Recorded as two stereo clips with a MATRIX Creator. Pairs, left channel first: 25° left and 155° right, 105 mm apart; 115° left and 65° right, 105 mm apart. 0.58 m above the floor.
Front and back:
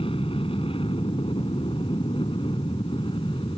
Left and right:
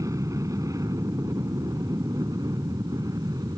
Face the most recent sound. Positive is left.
turn(degrees=-15)